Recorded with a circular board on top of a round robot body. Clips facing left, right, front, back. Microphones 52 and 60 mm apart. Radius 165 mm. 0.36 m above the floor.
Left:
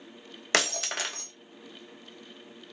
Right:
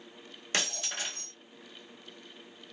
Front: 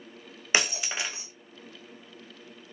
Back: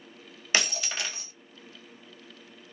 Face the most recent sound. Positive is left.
turn(degrees=75)